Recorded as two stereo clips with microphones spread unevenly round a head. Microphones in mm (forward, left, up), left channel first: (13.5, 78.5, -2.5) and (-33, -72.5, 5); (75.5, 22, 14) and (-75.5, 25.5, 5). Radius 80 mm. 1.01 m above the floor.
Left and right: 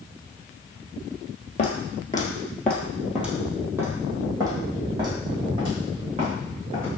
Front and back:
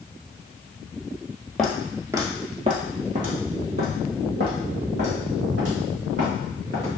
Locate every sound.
1.6 s footsteps: 80° left, 1.1 m; by 6.9 s 160° right, 3.5 m